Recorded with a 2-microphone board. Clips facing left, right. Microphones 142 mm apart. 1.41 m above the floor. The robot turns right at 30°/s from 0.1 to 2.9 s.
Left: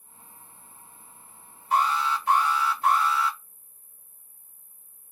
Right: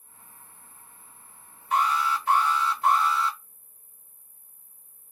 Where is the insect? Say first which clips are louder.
Left 2 dB; 125° right, 1.4 m; by 5.1 s 45° right, 1.4 m.